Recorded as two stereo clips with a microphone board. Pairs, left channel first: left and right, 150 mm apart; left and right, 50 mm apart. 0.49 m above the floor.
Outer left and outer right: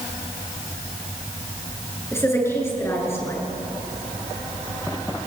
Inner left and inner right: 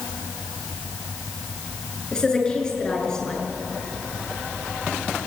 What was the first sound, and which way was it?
A woman speaking, 15° left (ahead or behind).